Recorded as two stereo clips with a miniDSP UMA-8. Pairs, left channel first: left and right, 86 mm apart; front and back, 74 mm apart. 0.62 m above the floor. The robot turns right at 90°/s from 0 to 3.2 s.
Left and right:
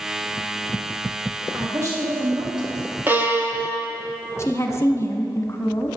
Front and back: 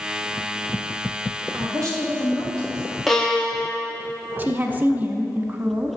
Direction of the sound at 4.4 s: 125° left.